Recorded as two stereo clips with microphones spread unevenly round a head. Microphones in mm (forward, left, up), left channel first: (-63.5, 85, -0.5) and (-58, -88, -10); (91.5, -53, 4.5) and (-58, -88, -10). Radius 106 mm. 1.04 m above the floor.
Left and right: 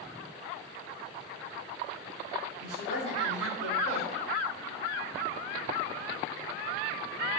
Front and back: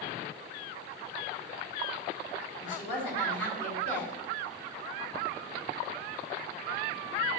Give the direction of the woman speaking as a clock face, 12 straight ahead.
11 o'clock.